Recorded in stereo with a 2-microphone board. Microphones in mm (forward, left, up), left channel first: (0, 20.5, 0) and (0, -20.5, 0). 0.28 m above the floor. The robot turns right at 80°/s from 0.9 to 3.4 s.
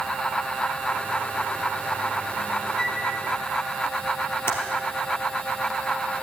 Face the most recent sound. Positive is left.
turn(degrees=70)  # may be behind; listen again after turning